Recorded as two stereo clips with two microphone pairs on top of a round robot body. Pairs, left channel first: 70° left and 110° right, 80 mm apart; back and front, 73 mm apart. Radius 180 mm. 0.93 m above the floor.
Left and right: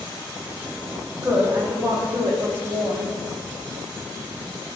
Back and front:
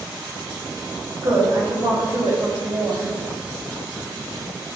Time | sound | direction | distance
1.2 | a woman speaking | 50° right | 2 m